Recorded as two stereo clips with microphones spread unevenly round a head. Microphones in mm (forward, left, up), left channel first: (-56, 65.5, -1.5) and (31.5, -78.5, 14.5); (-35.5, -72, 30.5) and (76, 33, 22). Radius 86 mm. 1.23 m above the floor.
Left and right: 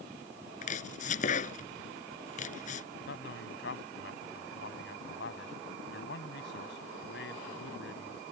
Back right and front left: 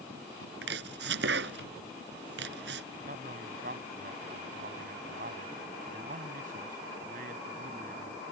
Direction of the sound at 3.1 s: 90° left.